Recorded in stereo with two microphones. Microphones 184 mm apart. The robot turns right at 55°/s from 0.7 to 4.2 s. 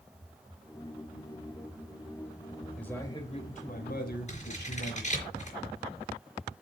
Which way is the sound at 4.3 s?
40° left (ahead or behind).